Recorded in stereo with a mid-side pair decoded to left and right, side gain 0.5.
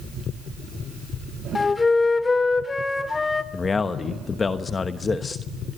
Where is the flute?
25° left, 1.9 m.